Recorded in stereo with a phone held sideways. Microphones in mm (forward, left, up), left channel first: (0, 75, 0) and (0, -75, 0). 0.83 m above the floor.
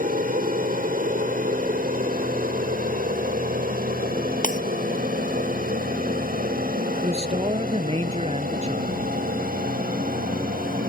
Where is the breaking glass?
60° left (ahead or behind).